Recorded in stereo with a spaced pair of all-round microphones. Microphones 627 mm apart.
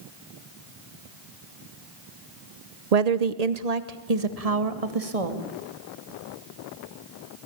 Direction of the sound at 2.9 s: 75° right (ahead or behind).